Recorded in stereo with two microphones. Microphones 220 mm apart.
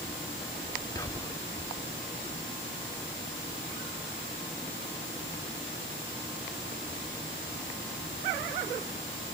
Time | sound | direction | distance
0.9 | whispering | 15° left (ahead or behind) | 0.9 m